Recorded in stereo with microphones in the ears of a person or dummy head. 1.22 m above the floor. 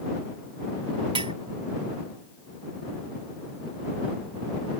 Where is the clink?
20° right (ahead or behind).